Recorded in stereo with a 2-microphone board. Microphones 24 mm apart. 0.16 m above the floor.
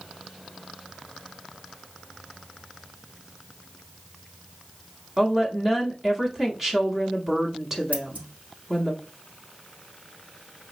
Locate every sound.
5.2 s a woman speaking: 10° right (ahead or behind), 1.0 m
7.9 s scissors: 75° right (ahead or behind), 2 m